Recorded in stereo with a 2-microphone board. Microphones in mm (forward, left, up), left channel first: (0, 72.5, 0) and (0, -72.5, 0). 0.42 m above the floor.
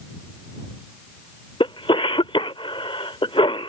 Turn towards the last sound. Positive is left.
turn(degrees=40)  # may be behind; listen again after turning